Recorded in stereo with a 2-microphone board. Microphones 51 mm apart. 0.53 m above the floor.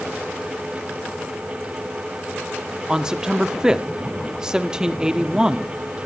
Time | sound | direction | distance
2.9 | a man speaking | 15° right (ahead or behind) | 0.7 m